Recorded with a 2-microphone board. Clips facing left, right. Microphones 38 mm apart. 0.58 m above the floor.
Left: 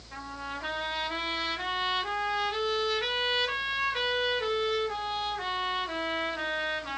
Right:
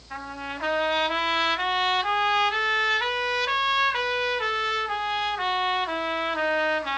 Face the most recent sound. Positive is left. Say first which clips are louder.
# right 4 dB
turn(degrees=-70)  # may be behind; listen again after turning